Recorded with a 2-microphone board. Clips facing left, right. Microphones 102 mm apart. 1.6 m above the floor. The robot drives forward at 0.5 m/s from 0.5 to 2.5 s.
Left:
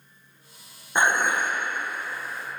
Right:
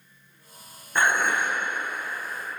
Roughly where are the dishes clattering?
Left.